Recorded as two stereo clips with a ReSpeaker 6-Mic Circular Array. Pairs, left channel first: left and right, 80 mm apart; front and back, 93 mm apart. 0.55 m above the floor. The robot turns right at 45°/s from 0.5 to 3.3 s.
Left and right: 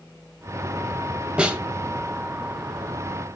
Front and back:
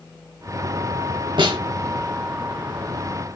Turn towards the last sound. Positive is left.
turn(degrees=-80)